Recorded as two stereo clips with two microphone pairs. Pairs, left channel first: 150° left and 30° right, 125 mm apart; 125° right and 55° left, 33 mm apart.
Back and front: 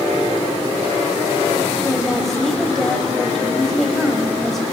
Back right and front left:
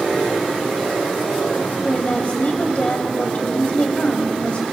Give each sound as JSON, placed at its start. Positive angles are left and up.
{"t": 1.8, "sound": "a woman speaking", "azimuth_deg": -125, "distance_m": 1.4}